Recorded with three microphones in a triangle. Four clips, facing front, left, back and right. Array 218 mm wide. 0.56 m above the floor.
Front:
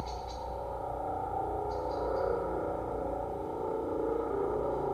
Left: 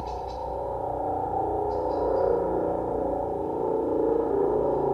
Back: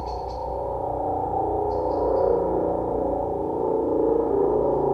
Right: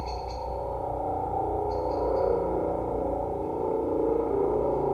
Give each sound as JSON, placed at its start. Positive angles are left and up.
{"t": 0.0, "sound": "a helicopter", "azimuth_deg": 170}